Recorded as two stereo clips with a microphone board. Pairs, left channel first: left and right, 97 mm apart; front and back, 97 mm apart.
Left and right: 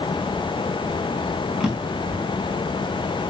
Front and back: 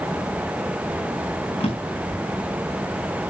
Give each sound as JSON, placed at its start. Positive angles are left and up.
{"t": 1.6, "sound": "a drawer", "azimuth_deg": -5, "distance_m": 5.0}